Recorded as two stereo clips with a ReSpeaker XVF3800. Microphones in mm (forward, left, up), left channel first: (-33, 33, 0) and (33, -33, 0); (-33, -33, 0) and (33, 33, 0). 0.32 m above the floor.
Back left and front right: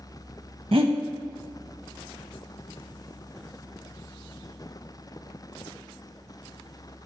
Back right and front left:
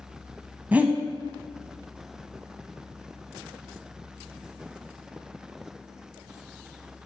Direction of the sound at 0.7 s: 30° right.